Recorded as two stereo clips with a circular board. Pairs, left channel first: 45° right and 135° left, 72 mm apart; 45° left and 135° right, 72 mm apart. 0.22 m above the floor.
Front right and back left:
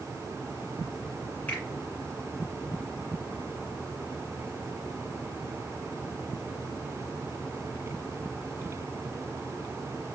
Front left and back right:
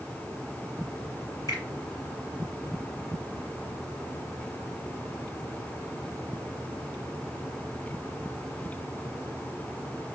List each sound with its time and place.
1.5 s a finger snap: 20° left, 1.9 m